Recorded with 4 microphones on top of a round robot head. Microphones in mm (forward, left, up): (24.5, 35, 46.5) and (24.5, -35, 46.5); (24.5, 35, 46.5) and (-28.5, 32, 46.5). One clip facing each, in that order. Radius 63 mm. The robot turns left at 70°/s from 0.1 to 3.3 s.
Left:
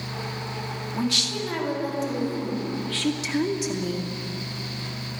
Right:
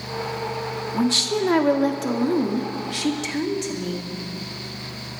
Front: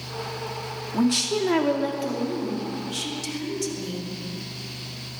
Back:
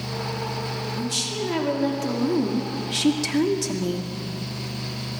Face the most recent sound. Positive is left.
turn(degrees=170)